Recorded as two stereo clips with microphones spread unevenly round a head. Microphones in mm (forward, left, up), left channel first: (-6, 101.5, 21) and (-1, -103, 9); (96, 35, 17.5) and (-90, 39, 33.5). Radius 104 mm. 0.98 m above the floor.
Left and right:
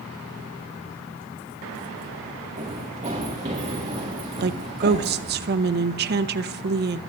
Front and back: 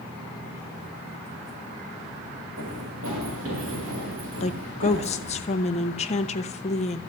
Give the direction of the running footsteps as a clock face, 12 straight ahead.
5 o'clock.